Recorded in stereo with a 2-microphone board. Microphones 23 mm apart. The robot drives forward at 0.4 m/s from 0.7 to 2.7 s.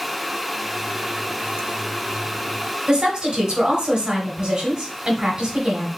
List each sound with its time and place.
2.9 s a woman speaking: 40° right (ahead or behind), 1.7 m